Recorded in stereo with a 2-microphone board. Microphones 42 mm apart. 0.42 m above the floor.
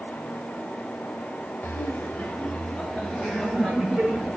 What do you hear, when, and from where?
1.6 s laughter: 50° left (ahead or behind), 1.5 m; by 4.4 s 5° left (ahead or behind), 3.5 m